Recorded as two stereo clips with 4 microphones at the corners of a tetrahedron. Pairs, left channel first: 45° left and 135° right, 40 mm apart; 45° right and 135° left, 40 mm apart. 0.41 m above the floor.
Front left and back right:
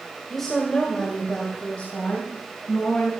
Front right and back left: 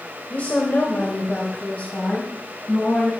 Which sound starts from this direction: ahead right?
A woman speaking, at 0.3 s.